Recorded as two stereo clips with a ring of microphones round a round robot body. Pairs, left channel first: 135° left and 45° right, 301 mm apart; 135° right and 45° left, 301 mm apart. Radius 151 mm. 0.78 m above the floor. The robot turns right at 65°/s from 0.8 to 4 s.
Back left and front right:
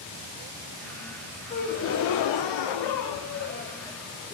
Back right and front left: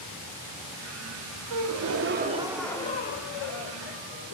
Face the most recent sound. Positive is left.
turn(degrees=-135)